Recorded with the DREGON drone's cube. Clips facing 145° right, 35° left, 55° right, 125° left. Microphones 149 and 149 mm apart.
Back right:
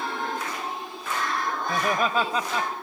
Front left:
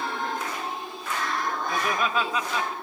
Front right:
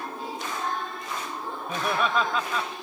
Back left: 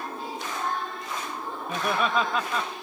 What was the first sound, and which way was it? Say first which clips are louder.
Laughter: back right 3 dB, even; 150° right.